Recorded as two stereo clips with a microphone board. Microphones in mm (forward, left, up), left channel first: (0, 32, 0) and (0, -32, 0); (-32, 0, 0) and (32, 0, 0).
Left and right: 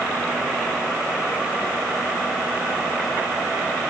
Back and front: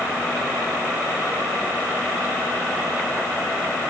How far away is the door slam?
No door slam in this recording.